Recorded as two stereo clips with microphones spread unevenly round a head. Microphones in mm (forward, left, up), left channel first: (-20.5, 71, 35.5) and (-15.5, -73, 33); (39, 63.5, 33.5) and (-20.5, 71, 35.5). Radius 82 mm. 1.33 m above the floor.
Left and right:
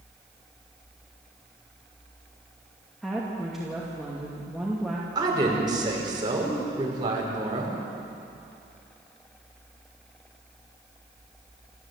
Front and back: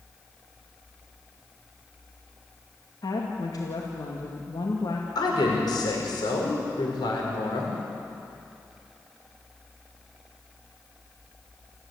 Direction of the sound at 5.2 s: 25° right.